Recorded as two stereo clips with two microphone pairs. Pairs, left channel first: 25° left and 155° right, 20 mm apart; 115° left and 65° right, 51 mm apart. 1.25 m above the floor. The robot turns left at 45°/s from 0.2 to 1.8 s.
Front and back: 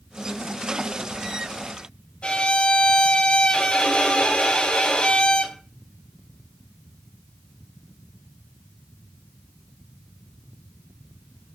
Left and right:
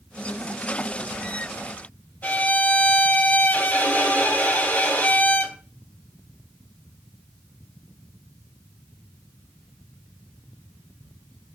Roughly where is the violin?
Ahead left.